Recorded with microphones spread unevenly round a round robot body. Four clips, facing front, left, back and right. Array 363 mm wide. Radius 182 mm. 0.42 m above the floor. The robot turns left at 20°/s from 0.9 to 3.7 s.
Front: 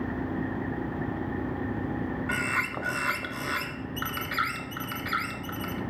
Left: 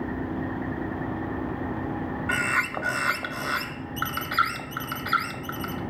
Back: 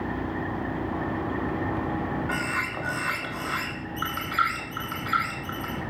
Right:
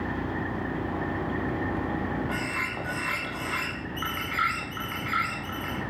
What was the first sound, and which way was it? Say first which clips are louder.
A bird: left 5 dB, back 1 dB; 70° left.